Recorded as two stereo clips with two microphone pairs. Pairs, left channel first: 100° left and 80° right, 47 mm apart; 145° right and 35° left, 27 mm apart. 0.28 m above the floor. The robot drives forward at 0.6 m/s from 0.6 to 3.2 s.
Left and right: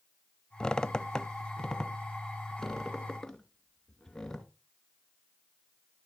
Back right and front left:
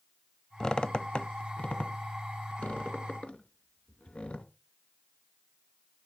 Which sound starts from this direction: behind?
A squeak, at 0.6 s.